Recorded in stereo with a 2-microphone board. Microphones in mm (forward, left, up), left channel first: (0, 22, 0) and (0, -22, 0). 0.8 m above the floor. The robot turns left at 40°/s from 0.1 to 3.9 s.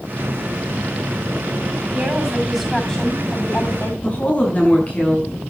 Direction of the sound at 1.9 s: 155° right.